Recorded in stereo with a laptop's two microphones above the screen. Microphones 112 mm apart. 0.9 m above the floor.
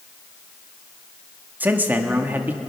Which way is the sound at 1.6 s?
15° right (ahead or behind).